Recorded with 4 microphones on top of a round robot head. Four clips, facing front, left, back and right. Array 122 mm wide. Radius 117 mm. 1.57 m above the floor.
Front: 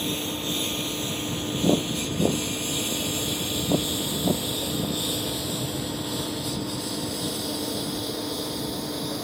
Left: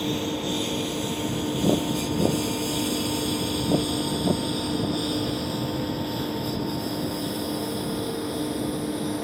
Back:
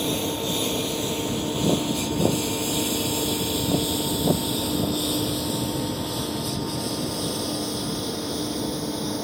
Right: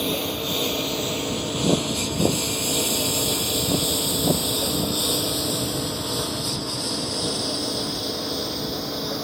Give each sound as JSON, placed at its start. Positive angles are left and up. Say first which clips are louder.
{"t": 0.0, "sound": "a lawn mower", "louder": "even, back 4 dB", "azimuth_deg": -105}